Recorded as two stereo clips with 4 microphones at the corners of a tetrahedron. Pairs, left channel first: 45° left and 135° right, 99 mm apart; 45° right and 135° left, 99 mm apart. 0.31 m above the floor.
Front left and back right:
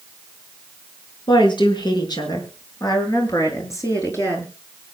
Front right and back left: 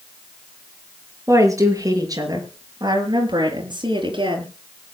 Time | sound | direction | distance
1.3 | a woman speaking | 75° left | 5 m